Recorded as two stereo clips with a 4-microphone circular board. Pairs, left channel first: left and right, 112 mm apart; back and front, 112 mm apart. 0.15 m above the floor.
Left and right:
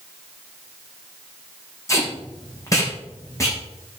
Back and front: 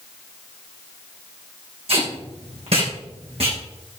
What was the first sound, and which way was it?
Tape being pulled, 25° left.